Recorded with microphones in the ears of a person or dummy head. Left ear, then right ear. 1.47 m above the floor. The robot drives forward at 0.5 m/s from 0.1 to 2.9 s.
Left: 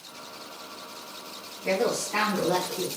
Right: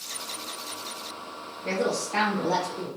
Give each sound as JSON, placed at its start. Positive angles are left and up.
{"t": 1.6, "sound": "a woman speaking", "side_deg": 15, "distance_m": 1.1}